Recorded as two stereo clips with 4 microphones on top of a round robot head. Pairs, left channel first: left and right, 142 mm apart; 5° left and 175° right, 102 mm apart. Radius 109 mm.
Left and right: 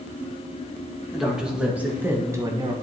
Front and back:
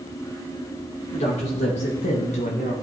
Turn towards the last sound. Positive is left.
turn(degrees=-30)